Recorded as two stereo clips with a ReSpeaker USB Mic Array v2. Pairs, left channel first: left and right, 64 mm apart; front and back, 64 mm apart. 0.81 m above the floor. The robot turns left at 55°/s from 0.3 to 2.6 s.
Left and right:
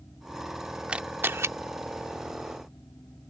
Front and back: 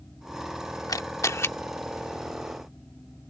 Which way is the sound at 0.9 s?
15° right.